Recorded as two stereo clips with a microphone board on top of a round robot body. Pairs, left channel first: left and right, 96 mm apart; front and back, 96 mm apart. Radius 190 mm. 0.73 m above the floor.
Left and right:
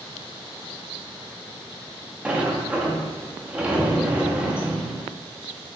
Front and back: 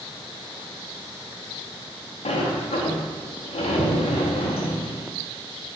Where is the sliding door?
15° right, 0.7 m.